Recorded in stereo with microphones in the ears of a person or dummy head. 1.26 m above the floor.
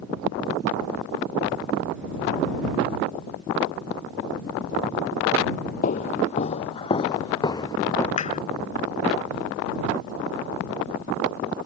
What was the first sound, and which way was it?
Footsteps, 45° left (ahead or behind).